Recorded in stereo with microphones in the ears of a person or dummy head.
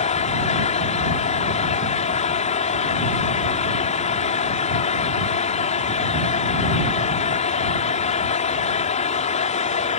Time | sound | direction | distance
0.0 | a fan | 40° left (ahead or behind) | ?